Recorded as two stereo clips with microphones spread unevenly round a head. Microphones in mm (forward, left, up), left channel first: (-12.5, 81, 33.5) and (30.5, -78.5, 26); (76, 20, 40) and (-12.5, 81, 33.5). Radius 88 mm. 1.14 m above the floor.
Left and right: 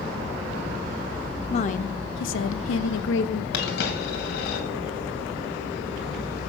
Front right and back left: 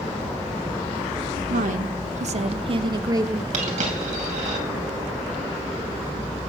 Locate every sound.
1.5 s a woman speaking: 165° left, 0.7 m; by 3.4 s 80° left, 1.0 m
3.5 s a dropped coin: 135° left, 2.5 m